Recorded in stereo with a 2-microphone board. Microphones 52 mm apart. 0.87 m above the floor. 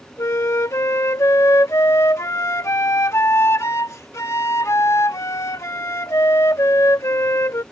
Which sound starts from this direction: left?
A flute, at 0.2 s.